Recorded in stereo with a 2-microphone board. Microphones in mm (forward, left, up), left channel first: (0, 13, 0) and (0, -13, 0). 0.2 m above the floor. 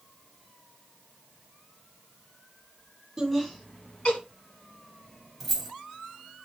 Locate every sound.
3.2 s laughter: 10° right (ahead or behind), 1.2 m; by 4.2 s 50° left (ahead or behind), 1.6 m
5.4 s keys jangling: 5° right (ahead or behind), 0.9 m